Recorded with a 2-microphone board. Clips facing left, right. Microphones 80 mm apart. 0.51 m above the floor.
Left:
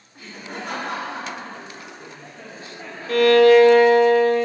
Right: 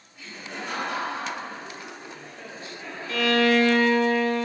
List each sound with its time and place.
0.1 s laughter: 45° left (ahead or behind), 1.7 m; by 3.7 s 40° left (ahead or behind), 3.5 m
3.1 s a violin: 55° left (ahead or behind), 0.8 m